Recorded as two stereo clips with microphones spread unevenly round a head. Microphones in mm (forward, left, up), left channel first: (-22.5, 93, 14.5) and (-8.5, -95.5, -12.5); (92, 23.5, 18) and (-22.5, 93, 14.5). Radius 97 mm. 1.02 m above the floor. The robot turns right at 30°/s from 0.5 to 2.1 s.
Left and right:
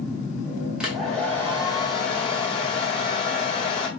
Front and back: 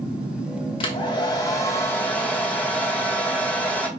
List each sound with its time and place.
0.8 s a hair dryer: 5° left, 0.8 m; by 3.9 s 45° left, 0.8 m